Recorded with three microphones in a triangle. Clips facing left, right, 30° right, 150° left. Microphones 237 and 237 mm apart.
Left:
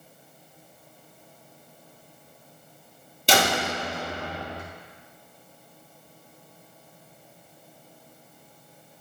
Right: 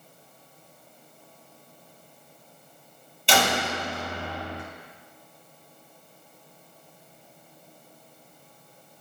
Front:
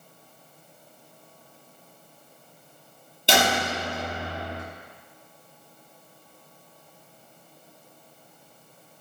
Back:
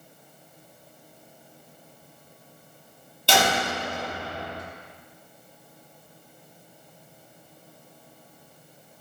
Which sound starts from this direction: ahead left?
A door slam, at 3.3 s.